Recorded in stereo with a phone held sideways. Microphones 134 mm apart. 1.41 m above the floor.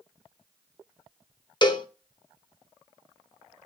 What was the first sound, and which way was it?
A cowbell, 35° left (ahead or behind).